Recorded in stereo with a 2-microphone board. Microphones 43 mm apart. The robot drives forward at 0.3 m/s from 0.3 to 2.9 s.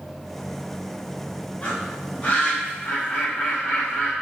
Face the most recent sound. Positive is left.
turn(degrees=35)  # may be behind; listen again after turning